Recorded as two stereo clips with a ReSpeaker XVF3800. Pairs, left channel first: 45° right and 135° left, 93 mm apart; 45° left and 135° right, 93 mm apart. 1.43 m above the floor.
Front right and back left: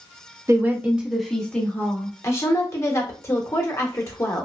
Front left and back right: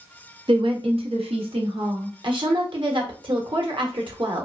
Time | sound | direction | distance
0.5 | a woman speaking | 165° right | 0.8 m
2.2 | a woman speaking | 105° right | 0.9 m